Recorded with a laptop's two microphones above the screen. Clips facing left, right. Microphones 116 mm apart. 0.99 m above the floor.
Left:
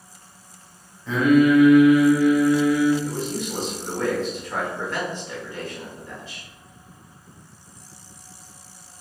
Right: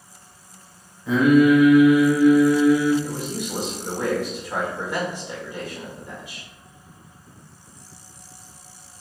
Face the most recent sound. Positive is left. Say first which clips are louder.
# left 1 dB
turn(degrees=-15)  # may be behind; listen again after turning